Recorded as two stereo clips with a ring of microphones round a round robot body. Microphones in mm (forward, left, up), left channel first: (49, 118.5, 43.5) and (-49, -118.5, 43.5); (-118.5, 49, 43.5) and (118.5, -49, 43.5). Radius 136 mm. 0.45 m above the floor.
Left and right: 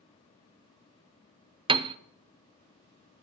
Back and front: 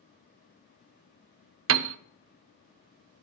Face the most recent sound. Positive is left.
turn(degrees=-45)